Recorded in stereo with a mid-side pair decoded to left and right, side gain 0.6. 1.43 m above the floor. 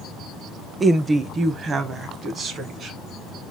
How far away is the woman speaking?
About 0.6 m.